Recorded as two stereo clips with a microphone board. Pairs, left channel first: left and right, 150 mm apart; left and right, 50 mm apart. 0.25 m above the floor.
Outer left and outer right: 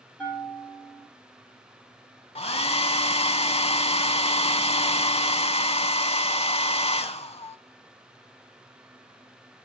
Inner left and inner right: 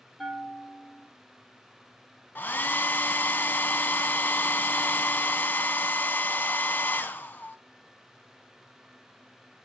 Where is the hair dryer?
45° left (ahead or behind), 0.5 m.